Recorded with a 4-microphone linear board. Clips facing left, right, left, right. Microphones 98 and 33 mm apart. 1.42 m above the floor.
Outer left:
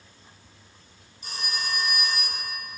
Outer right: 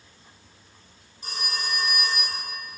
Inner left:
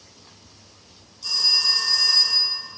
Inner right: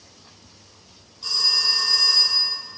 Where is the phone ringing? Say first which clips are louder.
Outer right 1 dB, even; 40° right (ahead or behind), 2 m.